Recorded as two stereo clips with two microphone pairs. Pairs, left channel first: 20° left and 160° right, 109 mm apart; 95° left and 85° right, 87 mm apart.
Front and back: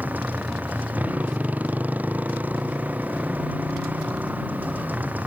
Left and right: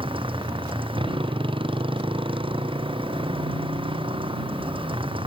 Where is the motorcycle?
85° right.